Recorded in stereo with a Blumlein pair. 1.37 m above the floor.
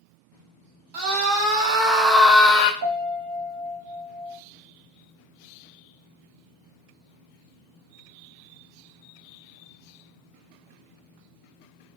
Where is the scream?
40° right, 1.4 m; by 2.7 s 40° left, 0.5 m.